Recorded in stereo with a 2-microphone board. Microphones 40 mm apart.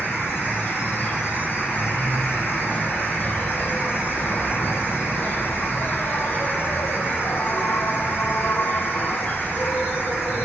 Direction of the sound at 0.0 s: 65° left (ahead or behind).